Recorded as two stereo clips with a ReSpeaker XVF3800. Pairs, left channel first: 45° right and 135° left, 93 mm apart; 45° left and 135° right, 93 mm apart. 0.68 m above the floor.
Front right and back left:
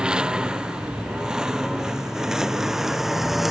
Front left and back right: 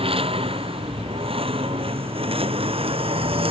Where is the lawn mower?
145° right; by 3.5 s 140° right.